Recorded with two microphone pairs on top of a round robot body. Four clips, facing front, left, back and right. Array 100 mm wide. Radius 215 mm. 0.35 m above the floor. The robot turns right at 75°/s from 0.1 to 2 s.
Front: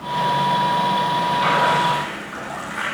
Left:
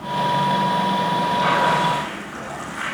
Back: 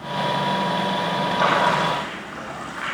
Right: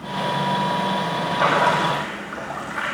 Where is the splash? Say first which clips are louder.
Right 2 dB, even; 135° right, 5 m; by 2.9 s 85° right, 5 m.